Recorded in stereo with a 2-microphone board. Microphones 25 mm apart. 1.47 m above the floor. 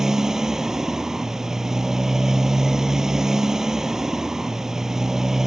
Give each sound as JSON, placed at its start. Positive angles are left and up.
{"t": 0.0, "sound": "a motorcycle", "side_deg": -20}